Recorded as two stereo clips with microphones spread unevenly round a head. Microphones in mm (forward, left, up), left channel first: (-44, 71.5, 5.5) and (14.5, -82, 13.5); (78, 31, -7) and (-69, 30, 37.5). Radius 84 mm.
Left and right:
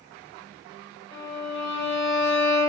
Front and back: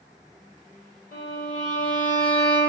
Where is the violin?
35° left, 4 m.